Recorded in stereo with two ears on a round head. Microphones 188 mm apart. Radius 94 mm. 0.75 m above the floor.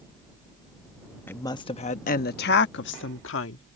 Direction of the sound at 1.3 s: 10° left (ahead or behind).